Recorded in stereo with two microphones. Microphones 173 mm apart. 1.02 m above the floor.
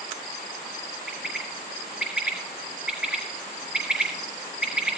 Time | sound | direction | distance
1.1 | a bird | 5° right (ahead or behind) | 5 m